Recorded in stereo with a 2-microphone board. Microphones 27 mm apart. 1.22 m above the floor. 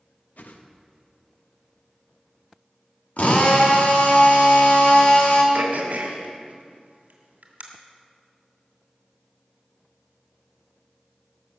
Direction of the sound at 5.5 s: 65° right (ahead or behind).